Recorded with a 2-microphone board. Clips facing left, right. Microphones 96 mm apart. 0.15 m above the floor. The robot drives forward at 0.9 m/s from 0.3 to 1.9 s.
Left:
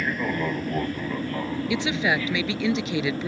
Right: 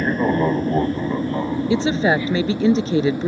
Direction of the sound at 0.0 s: 35° right (ahead or behind).